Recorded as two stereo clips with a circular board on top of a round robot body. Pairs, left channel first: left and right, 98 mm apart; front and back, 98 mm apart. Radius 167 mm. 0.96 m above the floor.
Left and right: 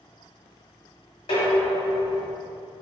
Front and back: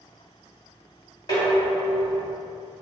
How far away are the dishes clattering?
About 1.6 m.